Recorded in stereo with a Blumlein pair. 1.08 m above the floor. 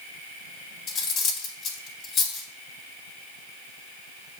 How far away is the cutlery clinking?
About 0.6 m.